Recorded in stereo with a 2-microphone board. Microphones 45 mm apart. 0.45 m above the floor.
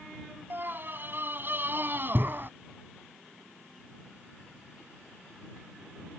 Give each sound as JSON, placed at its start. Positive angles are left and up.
{"t": 0.5, "sound": "a scream", "side_deg": -50}